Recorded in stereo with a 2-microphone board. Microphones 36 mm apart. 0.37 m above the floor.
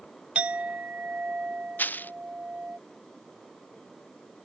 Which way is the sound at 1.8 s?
60° left (ahead or behind).